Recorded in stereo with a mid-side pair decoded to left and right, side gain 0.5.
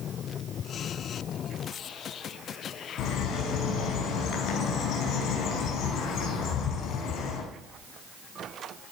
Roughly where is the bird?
Left.